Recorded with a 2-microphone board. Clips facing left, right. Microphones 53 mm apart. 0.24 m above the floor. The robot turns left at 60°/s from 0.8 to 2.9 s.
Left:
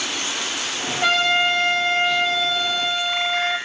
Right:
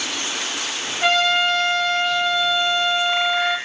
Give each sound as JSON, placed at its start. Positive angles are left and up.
{"t": 1.0, "sound": "a trumpet", "azimuth_deg": -175, "distance_m": 1.1}